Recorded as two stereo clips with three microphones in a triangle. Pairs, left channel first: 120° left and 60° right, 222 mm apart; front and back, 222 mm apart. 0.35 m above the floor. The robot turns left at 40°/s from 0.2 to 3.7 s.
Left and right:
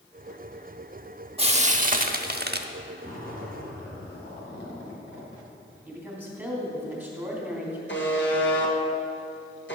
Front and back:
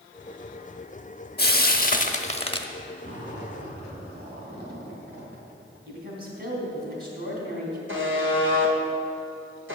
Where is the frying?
10° right, 0.6 m; by 2.7 s 60° right, 0.6 m.